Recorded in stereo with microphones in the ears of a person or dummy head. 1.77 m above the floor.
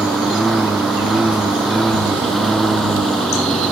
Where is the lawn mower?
Centre (ahead or behind); by 3.7 s 5° left (ahead or behind).